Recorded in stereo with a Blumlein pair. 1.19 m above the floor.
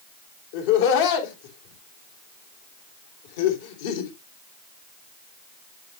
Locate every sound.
0.5 s laughter: 50° left, 3 m